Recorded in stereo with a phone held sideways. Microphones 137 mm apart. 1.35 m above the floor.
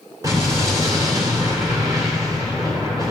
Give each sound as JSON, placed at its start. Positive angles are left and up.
{"t": 0.2, "sound": "an explosion", "side_deg": -25, "distance_m": 3.0}